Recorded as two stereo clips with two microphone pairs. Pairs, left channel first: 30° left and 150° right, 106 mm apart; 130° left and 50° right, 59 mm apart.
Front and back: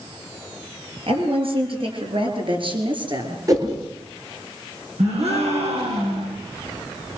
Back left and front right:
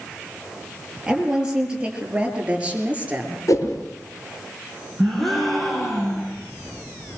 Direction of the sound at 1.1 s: 125° right.